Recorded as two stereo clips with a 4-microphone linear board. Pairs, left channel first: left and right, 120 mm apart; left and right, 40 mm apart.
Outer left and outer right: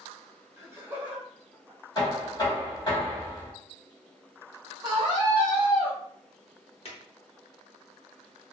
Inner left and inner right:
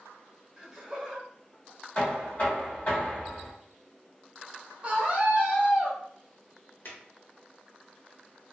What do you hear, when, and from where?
0.6 s laughter: 20° right (ahead or behind), 0.8 m; by 1.8 s 5° right (ahead or behind), 0.9 m
1.9 s knocking: 35° left (ahead or behind), 1.5 m
4.8 s a scream: 30° right (ahead or behind), 0.8 m
6.8 s a drawer: 60° left (ahead or behind), 0.8 m